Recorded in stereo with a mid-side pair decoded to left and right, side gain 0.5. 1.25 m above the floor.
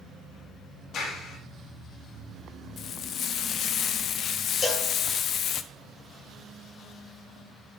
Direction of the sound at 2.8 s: 60° left.